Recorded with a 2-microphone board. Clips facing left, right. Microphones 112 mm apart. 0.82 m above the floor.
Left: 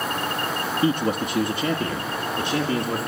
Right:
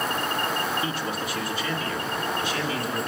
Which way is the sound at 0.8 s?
50° left (ahead or behind).